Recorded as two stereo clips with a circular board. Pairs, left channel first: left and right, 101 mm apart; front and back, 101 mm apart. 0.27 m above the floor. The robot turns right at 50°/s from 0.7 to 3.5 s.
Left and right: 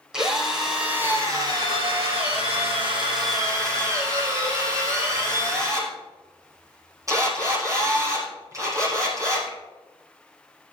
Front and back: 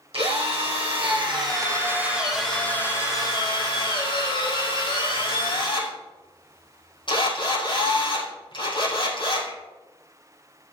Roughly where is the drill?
Behind.